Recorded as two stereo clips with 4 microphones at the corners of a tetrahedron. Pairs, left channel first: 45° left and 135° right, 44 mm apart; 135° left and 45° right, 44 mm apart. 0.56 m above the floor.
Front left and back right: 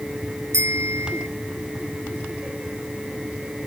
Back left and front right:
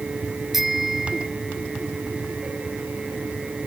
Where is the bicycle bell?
130° right.